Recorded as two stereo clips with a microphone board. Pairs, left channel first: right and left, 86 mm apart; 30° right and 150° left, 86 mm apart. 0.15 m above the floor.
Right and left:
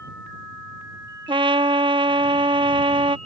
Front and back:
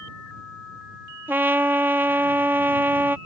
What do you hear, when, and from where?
1.3 s a trumpet: 85° left